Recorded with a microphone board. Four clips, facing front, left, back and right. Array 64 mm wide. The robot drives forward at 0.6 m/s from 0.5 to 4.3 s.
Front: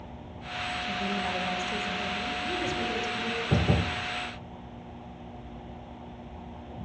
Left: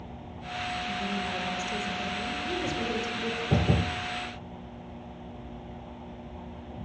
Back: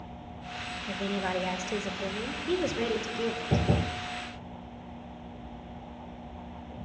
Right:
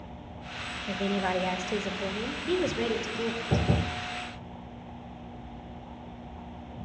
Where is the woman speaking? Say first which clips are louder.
Right 3 dB, back 2 dB; 105° right, 1.9 m; by 3.7 s 140° right, 3 m.